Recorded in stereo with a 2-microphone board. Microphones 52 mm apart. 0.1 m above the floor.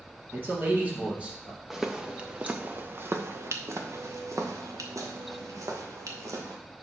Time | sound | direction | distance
0.3 | a man speaking | 45° right (ahead or behind) | 3 m
1.7 | footsteps | 5° right (ahead or behind) | 1.0 m